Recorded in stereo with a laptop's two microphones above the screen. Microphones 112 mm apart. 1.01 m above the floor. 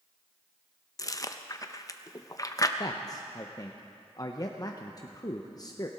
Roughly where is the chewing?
Left.